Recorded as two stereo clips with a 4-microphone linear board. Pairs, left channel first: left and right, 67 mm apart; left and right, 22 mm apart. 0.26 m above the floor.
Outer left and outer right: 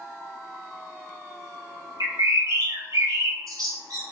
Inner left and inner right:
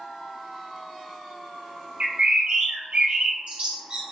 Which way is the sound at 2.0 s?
65° right (ahead or behind).